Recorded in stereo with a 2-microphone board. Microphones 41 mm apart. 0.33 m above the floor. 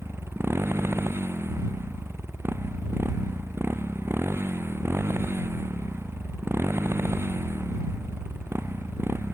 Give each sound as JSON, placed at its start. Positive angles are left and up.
{"t": 0.0, "sound": "a motorcycle", "side_deg": -90}